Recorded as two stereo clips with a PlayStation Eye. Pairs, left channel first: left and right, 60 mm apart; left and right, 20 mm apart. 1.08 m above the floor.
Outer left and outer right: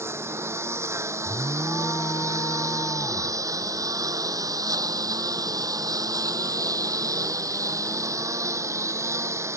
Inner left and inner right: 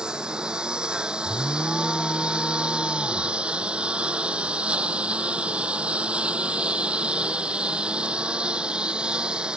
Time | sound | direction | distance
0.0 | a lawn mower | 45° right (ahead or behind) | ?
1.2 | an alarm | 75° left (ahead or behind) | ?